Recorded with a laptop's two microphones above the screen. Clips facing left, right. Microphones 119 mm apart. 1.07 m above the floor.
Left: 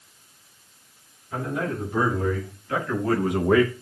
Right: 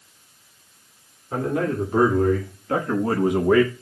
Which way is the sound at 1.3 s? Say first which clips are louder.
Right 5 dB; 55° right (ahead or behind).